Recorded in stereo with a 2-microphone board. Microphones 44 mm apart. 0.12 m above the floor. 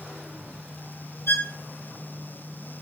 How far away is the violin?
About 1.5 m.